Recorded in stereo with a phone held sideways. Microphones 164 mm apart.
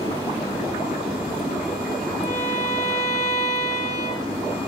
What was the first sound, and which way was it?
A violin, 45° left (ahead or behind).